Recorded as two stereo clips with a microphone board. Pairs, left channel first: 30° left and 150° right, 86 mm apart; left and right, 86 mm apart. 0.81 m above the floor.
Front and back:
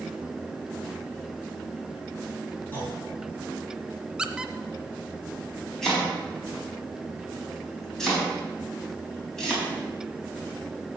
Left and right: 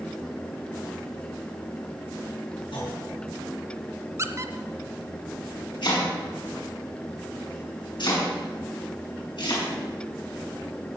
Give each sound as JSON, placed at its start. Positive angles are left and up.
{"t": 2.7, "sound": "a clunk", "azimuth_deg": 100, "distance_m": 6.5}
{"t": 4.2, "sound": "a squeak", "azimuth_deg": -75, "distance_m": 0.6}
{"t": 5.8, "sound": "chopping", "azimuth_deg": 115, "distance_m": 4.5}